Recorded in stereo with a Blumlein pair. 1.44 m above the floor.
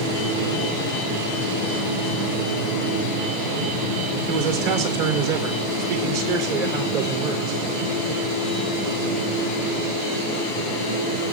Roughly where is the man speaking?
Ahead right.